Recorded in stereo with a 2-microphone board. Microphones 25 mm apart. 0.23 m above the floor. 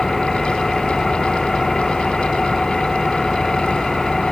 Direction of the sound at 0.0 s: 10° left (ahead or behind).